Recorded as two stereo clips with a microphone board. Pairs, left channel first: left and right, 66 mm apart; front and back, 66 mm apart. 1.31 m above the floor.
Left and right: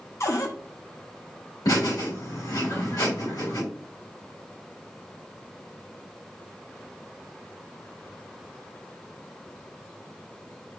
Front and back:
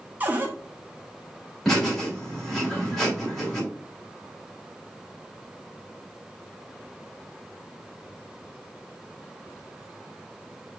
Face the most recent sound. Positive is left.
turn(degrees=85)